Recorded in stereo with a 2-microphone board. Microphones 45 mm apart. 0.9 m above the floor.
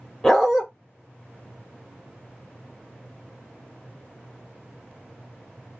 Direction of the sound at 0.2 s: 5° left (ahead or behind).